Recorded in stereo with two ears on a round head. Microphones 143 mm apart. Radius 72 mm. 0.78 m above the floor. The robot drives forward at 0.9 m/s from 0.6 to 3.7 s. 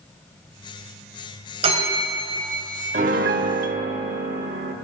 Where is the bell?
40° right (ahead or behind), 3 m; by 2.6 s 55° right (ahead or behind), 2.5 m.